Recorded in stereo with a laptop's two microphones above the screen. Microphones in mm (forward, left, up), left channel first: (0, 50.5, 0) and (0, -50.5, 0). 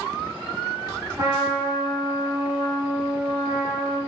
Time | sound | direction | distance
1.2 | a trumpet | 40° right (ahead or behind) | 1.5 m